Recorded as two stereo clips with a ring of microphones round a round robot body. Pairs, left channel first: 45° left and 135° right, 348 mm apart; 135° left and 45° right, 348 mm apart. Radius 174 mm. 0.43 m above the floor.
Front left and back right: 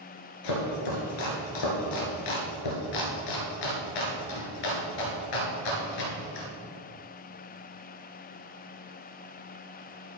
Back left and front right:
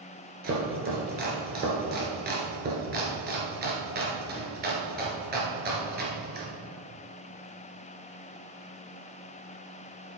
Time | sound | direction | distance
0.4 | chopping | 20° left | 2 m